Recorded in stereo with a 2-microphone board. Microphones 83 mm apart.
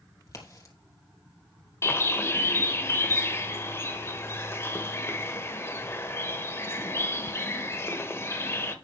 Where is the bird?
30° left (ahead or behind), 1.1 m.